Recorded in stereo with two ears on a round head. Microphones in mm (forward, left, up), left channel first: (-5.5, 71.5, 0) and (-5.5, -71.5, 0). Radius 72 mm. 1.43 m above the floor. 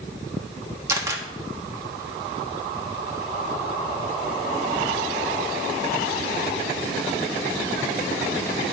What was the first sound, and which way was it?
A camera shutter, 15° right (ahead or behind).